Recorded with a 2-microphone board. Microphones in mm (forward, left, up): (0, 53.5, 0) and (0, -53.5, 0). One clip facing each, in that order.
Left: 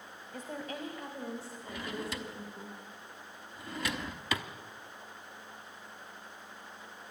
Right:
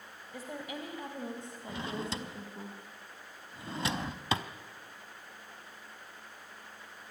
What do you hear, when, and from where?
0.3 s a woman speaking: 10° right (ahead or behind), 1.9 m; by 2.7 s 30° right (ahead or behind), 3 m
1.7 s a drawer: 30° right (ahead or behind), 0.9 m